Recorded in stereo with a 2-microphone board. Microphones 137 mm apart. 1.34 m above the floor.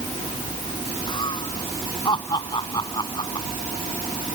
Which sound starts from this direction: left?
Laughter, at 1.1 s.